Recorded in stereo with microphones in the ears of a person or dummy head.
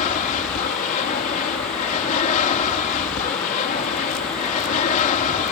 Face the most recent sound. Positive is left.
turn(degrees=40)  # may be behind; listen again after turning